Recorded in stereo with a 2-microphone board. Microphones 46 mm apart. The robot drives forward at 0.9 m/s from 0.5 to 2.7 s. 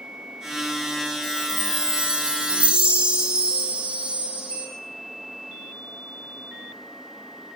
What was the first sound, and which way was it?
A chime, 20° right (ahead or behind).